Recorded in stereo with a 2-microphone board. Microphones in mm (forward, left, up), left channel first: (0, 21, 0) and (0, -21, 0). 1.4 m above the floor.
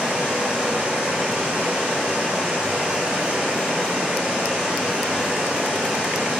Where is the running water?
35° right (ahead or behind), 1.4 m.